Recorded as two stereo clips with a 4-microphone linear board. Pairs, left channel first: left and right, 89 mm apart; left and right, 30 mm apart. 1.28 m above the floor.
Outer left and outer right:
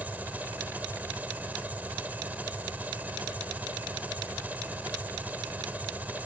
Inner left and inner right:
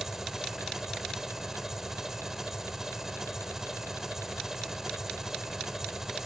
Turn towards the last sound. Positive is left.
turn(degrees=-15)  # may be behind; listen again after turning